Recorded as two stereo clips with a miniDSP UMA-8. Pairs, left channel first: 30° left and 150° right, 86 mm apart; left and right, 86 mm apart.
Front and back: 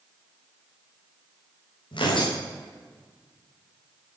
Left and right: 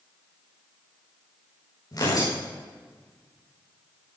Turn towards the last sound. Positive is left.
turn(degrees=45)